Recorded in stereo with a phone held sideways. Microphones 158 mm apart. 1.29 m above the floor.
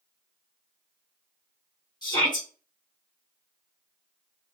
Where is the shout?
30° left (ahead or behind), 1.4 m.